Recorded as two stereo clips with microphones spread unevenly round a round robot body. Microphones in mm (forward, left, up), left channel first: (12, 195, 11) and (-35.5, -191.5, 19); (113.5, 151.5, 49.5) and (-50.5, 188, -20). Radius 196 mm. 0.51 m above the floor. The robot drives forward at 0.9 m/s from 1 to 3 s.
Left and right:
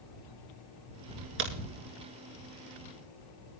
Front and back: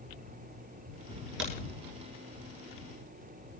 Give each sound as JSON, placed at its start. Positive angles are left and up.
{"t": 1.4, "sound": "a crack", "azimuth_deg": -155, "distance_m": 2.5}